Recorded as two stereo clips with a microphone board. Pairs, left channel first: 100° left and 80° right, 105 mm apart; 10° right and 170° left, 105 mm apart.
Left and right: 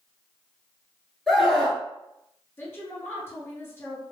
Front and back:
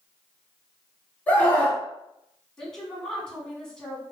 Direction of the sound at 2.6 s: 65° left.